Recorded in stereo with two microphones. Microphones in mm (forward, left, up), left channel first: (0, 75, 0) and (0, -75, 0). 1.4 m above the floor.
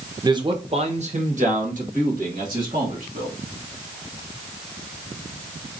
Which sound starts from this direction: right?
A man speaking, at 0.2 s.